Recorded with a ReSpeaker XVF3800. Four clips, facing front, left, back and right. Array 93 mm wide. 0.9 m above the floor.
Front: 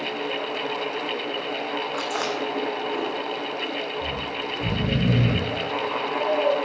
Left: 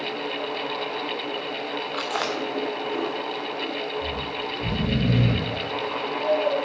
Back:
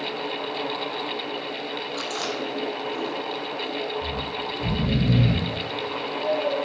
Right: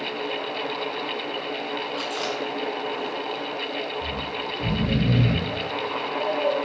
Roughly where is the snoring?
Ahead right.